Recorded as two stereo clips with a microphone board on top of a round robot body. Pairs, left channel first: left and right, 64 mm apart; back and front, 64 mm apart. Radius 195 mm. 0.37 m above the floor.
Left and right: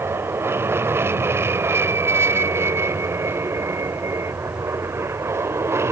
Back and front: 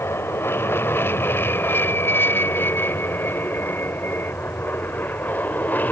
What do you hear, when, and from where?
0.0 s an aircraft: 135° right; by 5.9 s 125° right